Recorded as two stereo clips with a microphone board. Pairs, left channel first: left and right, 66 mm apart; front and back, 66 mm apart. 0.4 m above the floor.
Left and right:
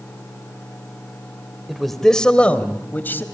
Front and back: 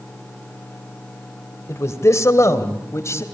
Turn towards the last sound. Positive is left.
turn(degrees=35)